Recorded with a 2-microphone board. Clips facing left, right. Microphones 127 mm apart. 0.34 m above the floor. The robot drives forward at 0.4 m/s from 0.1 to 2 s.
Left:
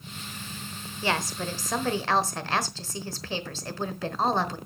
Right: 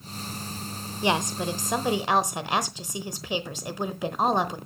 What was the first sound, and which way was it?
A woman speaking, 20° right (ahead or behind).